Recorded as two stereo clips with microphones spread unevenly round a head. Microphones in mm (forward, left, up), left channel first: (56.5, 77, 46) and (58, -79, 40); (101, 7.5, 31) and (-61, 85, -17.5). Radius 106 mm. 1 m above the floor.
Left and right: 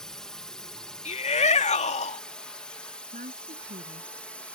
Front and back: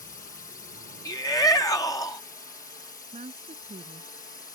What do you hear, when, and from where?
0.0 s a drone: 5° left; by 4.6 s 10° left
1.1 s a shout: 50° left
3.1 s a woman speaking: 140° right